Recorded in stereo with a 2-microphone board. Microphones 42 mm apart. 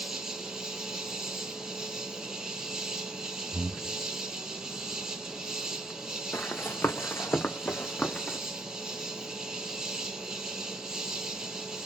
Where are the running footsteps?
65° left (ahead or behind), 1.1 m; by 8.4 s 30° left (ahead or behind), 1.1 m.